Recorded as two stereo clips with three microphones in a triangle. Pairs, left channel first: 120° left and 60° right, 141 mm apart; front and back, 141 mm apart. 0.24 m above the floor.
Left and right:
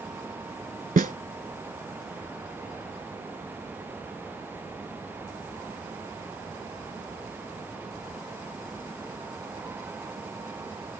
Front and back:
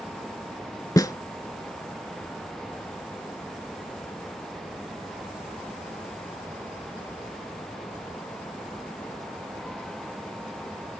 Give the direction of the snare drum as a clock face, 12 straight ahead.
2 o'clock.